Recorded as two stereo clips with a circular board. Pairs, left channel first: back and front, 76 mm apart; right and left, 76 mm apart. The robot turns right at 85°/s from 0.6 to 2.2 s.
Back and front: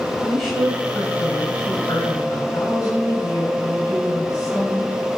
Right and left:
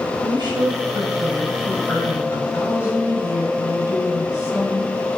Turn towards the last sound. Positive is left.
turn(degrees=-135)